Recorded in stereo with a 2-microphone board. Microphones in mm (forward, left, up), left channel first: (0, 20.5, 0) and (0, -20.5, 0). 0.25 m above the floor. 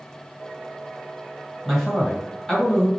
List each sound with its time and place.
1.6 s a man speaking: 5° left (ahead or behind), 1.7 m